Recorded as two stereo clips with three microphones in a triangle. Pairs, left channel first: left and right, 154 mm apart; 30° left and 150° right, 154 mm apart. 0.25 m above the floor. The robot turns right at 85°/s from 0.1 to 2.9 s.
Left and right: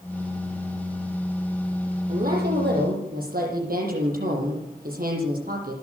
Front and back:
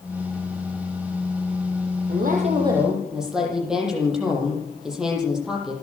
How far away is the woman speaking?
About 10 m.